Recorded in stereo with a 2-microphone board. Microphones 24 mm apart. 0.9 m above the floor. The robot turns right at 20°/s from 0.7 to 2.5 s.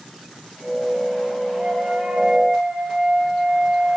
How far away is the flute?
About 9 m.